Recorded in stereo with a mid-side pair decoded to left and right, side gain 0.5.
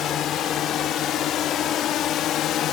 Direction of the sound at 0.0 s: 65° left.